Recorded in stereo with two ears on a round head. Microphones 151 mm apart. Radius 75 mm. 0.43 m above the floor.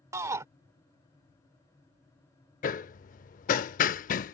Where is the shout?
20° right (ahead or behind).